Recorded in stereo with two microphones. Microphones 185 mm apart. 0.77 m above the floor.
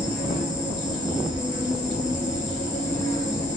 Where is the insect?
25° right (ahead or behind), 1.6 m.